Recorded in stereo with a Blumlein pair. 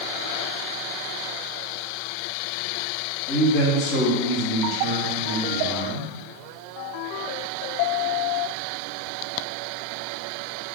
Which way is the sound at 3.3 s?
40° left.